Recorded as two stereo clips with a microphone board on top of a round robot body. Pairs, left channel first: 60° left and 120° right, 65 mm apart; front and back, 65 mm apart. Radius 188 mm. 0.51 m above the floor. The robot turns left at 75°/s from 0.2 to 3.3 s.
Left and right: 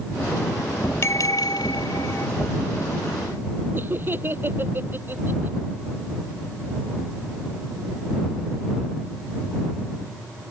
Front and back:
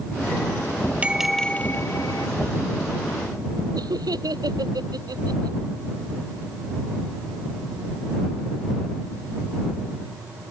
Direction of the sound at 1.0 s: 110° left.